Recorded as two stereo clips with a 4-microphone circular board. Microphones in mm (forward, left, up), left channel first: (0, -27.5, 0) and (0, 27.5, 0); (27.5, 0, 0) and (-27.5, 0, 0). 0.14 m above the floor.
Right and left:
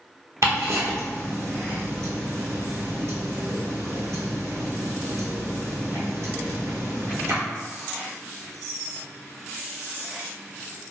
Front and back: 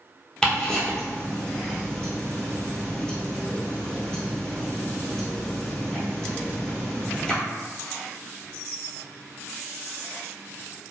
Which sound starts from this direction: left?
Ticking, at 0.4 s.